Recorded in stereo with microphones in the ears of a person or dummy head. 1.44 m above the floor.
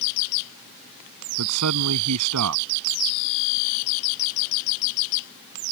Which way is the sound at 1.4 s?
80° right.